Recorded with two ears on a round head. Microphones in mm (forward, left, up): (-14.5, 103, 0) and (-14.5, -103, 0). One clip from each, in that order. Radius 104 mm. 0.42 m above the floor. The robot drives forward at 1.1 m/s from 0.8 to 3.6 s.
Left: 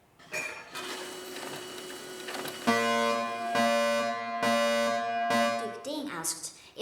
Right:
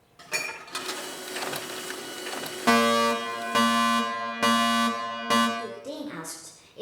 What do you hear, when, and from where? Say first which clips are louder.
0.2 s dishes clattering: right 5 dB; 35° right (ahead or behind), 3.5 m; by 1.6 s 50° right (ahead or behind), 3 m
2.7 s a fire alarm: right 5 dB; 30° right (ahead or behind), 2.5 m; by 5.5 s 25° right (ahead or behind), 3 m
5.6 s a woman speaking: even; 40° left (ahead or behind), 1.7 m